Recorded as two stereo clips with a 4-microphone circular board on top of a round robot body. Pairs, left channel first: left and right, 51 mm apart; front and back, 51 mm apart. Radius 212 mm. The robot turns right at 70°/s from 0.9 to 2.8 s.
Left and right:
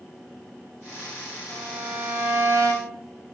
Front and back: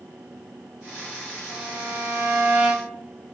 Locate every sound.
1.5 s a violin: 165° left, 4 m; by 3.0 s 100° right, 4 m